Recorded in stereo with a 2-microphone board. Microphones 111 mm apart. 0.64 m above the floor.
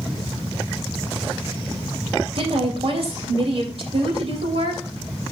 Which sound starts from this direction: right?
A woman speaking, at 2.4 s.